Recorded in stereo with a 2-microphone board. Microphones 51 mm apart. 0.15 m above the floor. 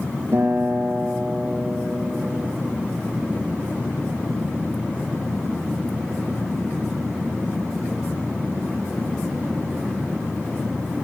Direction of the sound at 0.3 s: 55° right (ahead or behind).